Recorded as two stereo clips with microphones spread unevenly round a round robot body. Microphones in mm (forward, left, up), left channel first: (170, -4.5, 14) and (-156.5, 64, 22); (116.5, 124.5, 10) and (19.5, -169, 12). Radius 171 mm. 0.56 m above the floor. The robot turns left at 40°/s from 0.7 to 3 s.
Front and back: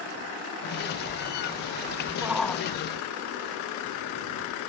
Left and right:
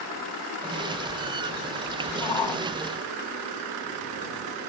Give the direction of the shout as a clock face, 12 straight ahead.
9 o'clock.